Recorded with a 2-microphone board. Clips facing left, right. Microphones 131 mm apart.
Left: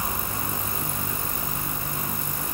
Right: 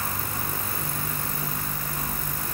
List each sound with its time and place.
Only background noise.